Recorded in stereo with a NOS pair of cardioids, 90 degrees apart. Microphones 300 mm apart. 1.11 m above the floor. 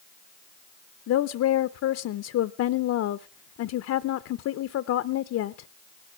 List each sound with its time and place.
1.1 s a woman speaking: 60° left, 0.6 m